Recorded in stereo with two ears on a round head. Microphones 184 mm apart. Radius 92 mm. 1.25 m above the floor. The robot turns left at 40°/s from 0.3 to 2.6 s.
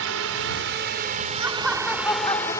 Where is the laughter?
165° right; by 2.6 s 145° left.